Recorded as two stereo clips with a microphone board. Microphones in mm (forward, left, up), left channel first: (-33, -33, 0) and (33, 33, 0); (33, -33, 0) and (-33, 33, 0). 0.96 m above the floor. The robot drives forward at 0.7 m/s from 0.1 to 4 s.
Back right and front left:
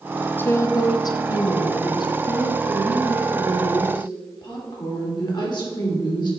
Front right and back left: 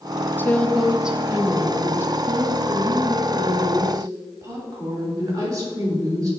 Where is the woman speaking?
85° right, 0.6 m; by 6.3 s 175° right, 2.5 m.